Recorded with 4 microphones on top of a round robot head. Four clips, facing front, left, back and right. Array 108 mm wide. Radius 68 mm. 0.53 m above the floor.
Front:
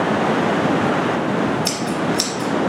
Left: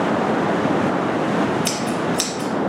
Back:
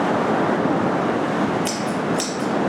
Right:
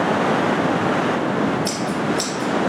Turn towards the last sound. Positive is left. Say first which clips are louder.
# even, front 1 dB
turn(degrees=60)